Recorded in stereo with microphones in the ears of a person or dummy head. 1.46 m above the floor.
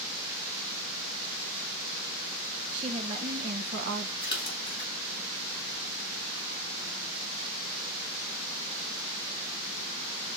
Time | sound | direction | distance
2.7 | a woman speaking | 35° right (ahead or behind) | 3 m
4.2 | a splash | 25° left (ahead or behind) | 3.5 m